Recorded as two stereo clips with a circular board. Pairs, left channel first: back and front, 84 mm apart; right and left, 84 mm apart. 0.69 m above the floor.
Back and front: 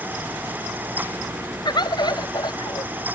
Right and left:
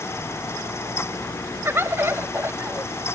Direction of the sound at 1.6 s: 150° left.